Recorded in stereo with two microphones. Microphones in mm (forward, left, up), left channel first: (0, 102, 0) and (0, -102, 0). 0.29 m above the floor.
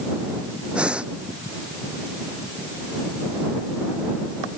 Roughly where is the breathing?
Centre.